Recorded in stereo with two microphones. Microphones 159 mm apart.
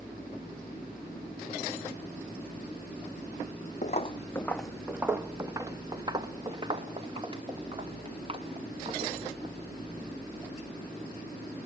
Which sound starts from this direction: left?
Footsteps, at 3.8 s.